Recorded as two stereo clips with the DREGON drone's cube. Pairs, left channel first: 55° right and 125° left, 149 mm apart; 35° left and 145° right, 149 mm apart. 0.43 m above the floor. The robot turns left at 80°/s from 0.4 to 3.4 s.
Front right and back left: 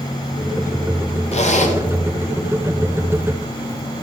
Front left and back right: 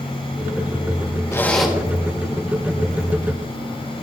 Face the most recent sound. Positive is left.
turn(degrees=160)